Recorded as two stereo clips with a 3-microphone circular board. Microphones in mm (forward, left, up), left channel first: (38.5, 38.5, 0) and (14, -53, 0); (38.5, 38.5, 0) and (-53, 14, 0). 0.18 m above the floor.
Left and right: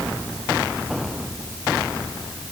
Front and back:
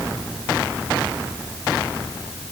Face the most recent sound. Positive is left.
No sound to turn to.